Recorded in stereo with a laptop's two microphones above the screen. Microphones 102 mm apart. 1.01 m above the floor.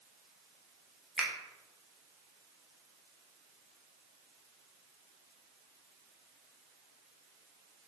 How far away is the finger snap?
About 0.7 m.